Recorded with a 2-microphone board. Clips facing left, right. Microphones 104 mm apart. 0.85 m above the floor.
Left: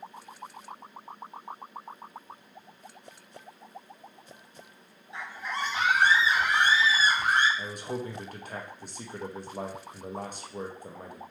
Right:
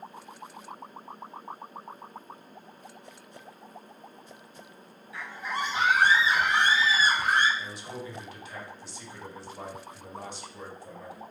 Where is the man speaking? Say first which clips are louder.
Left 4 dB; 45° left (ahead or behind), 0.8 m.